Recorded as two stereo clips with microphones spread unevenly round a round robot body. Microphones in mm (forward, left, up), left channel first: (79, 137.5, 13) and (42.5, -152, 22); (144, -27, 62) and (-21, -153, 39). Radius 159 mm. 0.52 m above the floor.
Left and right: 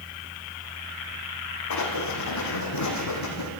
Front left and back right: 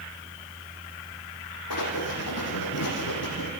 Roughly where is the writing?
Ahead left.